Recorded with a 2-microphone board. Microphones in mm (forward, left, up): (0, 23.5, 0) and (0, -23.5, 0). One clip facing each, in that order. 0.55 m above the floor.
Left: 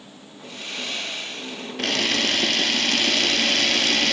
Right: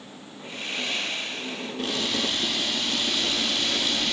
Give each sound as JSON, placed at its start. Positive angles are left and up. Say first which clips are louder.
{"t": 0.4, "sound": "sawing", "louder": "right 1 dB", "side_deg": -25, "distance_m": 9.5}
{"t": 1.8, "sound": "a camera shutter", "louder": "left 5 dB", "side_deg": 75, "distance_m": 2.0}